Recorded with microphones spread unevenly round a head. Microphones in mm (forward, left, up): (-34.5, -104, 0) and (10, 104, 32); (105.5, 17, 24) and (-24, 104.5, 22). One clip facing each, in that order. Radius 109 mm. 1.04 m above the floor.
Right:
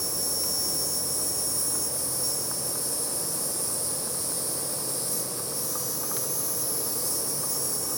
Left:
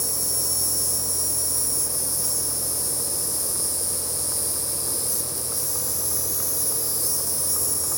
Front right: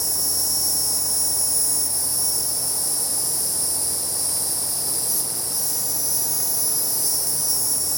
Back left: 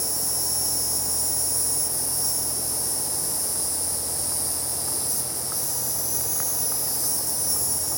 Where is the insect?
20° left, 3 m.